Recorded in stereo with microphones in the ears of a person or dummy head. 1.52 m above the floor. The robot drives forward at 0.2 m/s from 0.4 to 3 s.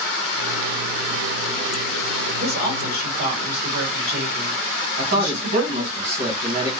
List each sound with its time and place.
2.4 s a woman speaking: 55° right (ahead or behind), 1.4 m
5.0 s a man speaking: 80° right, 1.8 m